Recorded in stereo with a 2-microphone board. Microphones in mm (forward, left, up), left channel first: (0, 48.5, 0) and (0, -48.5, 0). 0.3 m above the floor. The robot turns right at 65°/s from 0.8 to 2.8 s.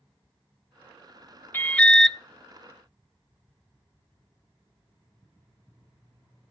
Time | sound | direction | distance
1.5 | an alarm | 140° left | 0.7 m